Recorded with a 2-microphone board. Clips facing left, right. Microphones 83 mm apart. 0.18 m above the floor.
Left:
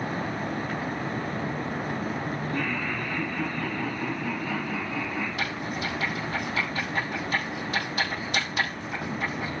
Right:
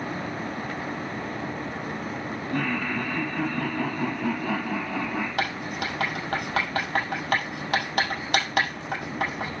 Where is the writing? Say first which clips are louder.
Right 2 dB; 65° right (ahead or behind), 6 m.